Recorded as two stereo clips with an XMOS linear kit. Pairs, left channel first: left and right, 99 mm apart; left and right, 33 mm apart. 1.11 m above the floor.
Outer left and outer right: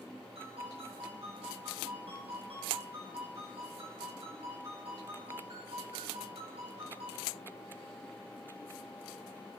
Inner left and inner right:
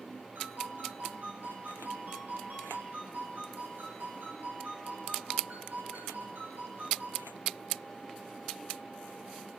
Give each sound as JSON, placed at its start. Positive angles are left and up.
{"t": 0.3, "sound": "a ringtone", "side_deg": -85, "distance_m": 5.5}